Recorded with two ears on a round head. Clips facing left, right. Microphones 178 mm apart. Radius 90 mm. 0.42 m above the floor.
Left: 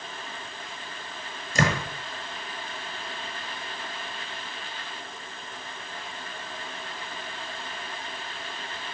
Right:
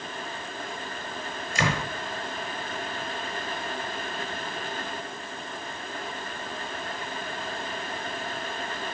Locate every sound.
1.6 s a door slam: 40° left (ahead or behind), 7 m